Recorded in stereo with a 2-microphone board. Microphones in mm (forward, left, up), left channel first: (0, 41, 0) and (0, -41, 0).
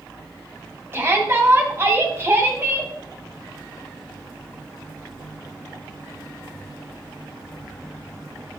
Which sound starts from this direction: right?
A shout, at 0.9 s.